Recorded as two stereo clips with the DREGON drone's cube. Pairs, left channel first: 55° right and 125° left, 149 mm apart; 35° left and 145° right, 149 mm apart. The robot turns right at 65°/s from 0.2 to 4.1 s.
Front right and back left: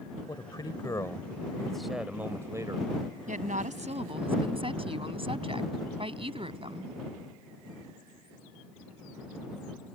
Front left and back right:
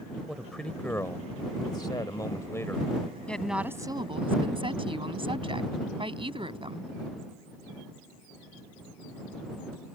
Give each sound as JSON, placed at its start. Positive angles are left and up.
{"t": 0.3, "sound": "a man speaking", "azimuth_deg": -65}
{"t": 3.3, "sound": "a woman speaking", "azimuth_deg": 115}